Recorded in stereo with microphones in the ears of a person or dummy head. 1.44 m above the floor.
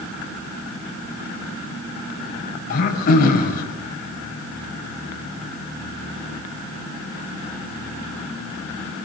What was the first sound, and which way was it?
Throat clearing, 50° left (ahead or behind).